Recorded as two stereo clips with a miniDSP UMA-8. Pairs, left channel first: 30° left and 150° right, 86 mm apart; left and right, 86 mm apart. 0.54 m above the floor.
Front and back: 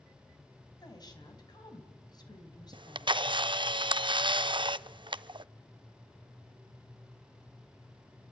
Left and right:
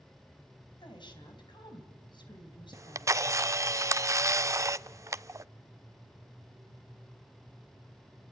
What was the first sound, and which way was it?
A woman speaking, 65° left.